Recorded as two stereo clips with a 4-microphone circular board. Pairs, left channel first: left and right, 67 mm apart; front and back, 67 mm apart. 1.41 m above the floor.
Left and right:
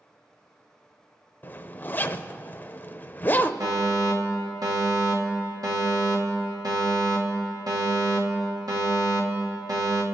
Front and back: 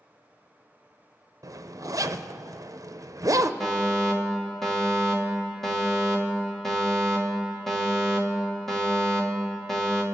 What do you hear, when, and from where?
1.4 s a zipper: 150° left, 0.5 m
3.6 s a fire alarm: 85° right, 2.5 m